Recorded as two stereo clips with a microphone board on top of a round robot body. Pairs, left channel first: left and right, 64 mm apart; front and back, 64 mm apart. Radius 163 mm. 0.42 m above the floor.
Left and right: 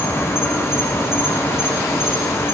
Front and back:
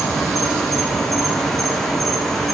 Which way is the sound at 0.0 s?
85° left.